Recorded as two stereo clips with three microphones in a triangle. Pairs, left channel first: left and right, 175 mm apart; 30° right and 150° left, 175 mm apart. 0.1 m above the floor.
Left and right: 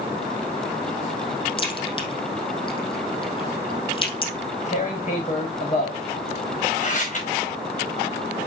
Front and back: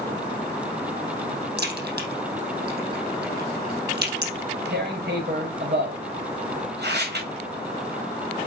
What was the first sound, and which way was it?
A crack, 150° left.